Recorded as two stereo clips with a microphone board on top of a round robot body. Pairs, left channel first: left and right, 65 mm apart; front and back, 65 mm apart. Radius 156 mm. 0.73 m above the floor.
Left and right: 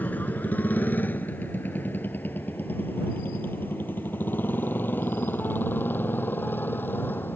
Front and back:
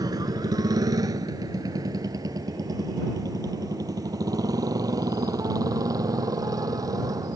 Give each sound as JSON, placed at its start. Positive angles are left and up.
{"t": 0.0, "sound": "a motorcycle", "azimuth_deg": 155}